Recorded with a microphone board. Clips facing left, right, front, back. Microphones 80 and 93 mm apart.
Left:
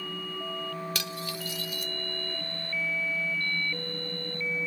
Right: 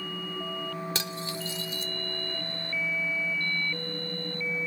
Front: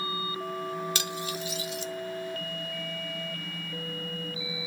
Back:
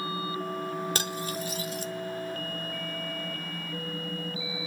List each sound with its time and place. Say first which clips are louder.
0.9 s cutlery clinking: right 1 dB, back 1 dB; 145° right, 0.5 m